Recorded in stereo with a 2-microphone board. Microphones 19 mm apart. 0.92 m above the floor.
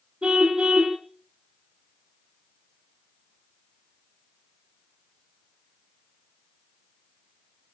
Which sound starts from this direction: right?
A car horn, at 0.2 s.